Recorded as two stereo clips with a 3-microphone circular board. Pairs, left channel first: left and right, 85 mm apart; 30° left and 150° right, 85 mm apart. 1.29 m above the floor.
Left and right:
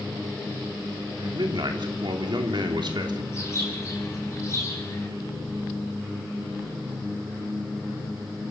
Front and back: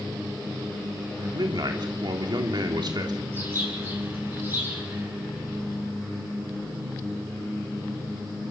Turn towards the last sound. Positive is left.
turn(degrees=145)